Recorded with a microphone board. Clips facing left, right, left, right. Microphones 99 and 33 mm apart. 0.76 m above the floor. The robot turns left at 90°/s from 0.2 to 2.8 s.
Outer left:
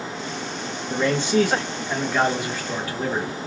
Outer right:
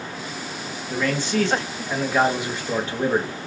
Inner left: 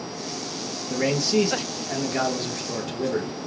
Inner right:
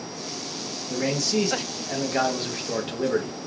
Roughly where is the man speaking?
Left.